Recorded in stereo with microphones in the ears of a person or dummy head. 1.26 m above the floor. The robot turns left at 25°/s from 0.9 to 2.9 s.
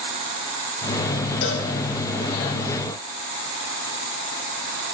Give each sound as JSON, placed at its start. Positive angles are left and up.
{"t": 1.4, "sound": "a cowbell", "side_deg": 65, "distance_m": 2.0}